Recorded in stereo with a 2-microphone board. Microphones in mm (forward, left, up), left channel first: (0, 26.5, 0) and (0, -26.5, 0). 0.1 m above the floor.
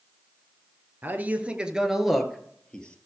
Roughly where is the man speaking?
Right.